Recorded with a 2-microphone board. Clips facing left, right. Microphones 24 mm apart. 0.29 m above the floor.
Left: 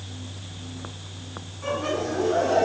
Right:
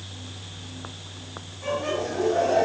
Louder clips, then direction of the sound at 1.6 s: Even; 5° right (ahead or behind).